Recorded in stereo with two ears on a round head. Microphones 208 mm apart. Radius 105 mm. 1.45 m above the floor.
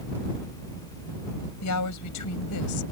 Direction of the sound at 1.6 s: 90° left.